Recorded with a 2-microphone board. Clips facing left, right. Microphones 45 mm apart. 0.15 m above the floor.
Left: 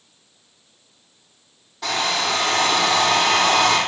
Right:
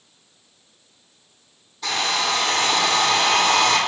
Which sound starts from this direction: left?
A hair dryer, at 1.8 s.